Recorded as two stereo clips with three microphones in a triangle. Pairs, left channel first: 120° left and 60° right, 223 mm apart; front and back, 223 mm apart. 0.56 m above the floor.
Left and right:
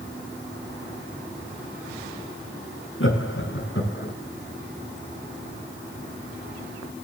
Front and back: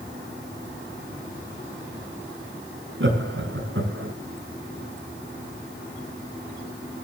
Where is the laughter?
145° left, 4.5 m; by 4.1 s 150° left, 5.5 m.